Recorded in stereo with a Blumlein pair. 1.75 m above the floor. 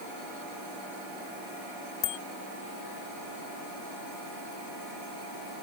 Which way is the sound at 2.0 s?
35° left.